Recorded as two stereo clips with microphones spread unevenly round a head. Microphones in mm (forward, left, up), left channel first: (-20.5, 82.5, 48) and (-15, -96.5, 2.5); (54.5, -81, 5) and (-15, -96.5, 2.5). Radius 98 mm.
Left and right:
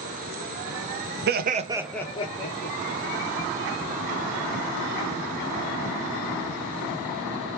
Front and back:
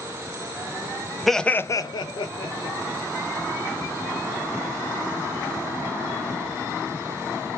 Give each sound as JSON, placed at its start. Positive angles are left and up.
{"t": 1.3, "sound": "laughter", "azimuth_deg": -75, "distance_m": 0.8}